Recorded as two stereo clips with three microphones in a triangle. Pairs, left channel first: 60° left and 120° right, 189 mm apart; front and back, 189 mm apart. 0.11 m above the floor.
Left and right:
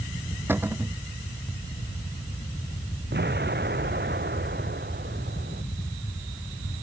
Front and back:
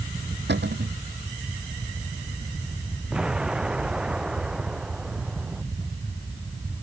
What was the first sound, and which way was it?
A cupboard door, 160° left.